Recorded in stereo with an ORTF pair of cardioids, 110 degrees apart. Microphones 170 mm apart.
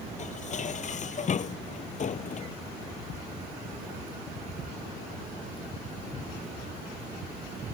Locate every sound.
0.2 s dishes clattering: 45° left